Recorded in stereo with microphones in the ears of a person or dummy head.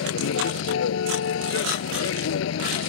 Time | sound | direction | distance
0.0 | a vehicle | 85° left | ?